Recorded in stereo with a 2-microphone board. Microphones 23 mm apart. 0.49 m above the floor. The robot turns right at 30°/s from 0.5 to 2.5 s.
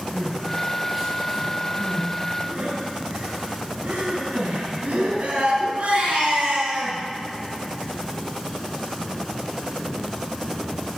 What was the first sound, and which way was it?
Crying, 5° right (ahead or behind).